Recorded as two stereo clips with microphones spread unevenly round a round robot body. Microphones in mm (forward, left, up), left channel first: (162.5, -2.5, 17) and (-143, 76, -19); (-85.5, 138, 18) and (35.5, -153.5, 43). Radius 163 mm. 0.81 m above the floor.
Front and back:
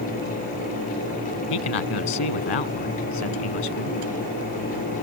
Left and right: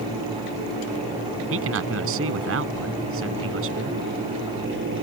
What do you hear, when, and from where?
1.5 s a man speaking: 15° right